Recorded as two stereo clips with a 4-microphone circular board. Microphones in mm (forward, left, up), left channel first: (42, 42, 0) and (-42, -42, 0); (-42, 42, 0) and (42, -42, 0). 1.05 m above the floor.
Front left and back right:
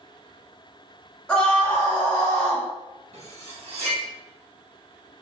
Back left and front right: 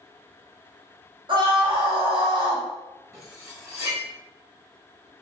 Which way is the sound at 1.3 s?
35° right.